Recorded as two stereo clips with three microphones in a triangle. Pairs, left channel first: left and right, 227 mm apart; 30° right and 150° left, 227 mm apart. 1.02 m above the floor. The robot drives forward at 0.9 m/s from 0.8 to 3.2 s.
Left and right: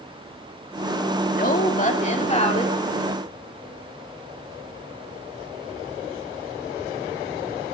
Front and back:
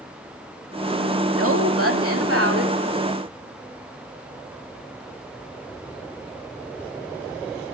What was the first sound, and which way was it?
A woman speaking, 135° left.